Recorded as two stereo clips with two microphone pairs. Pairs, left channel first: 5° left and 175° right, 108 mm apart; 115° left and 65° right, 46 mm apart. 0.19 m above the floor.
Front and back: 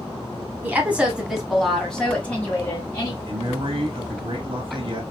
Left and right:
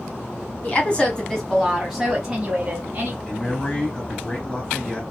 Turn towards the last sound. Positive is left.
turn(degrees=175)